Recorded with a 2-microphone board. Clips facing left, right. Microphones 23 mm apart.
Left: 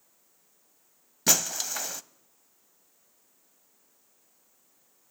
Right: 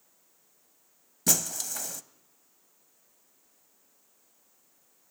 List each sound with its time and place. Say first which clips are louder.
1.3 s breaking glass: left 3 dB; 30° left (ahead or behind), 0.7 m